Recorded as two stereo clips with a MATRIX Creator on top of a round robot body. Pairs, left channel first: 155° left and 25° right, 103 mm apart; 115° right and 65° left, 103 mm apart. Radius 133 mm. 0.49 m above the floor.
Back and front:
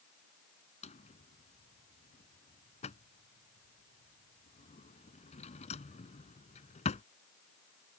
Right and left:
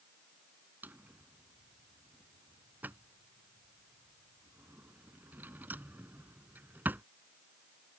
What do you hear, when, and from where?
0.8 s a drawer: 140° left